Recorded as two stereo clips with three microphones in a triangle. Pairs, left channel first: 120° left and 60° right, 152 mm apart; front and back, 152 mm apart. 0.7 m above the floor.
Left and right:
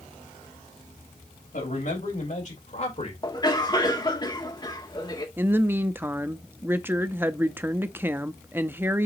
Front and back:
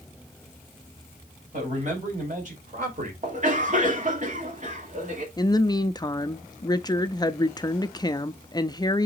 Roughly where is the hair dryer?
No hair dryer in this recording.